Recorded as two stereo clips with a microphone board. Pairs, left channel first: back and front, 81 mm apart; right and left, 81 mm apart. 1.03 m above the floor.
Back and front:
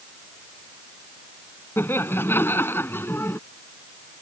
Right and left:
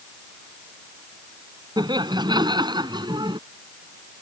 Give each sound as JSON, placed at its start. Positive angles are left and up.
{"t": 1.8, "sound": "laughter", "azimuth_deg": 120}